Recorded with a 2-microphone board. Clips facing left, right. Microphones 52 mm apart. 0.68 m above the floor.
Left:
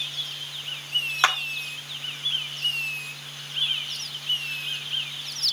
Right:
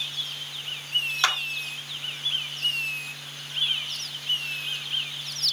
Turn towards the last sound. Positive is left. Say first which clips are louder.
# left 4 dB
turn(degrees=25)  # may be behind; listen again after turning